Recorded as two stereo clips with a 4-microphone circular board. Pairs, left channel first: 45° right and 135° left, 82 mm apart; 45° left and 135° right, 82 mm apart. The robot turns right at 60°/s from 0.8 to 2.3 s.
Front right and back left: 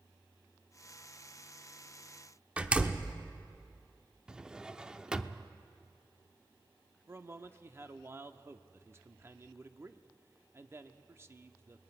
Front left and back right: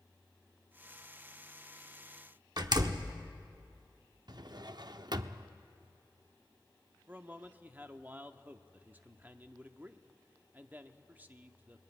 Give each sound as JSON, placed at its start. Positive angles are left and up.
{"t": 2.6, "sound": "a door slam", "azimuth_deg": -150, "distance_m": 0.9}
{"t": 4.3, "sound": "a drawer", "azimuth_deg": -145, "distance_m": 0.6}
{"t": 7.1, "sound": "a man speaking", "azimuth_deg": 170, "distance_m": 0.8}